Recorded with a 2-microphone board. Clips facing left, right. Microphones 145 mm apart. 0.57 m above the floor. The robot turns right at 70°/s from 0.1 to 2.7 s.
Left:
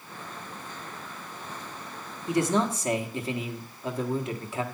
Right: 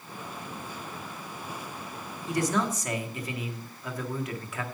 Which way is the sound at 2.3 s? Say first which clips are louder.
Left 3 dB; 20° left (ahead or behind).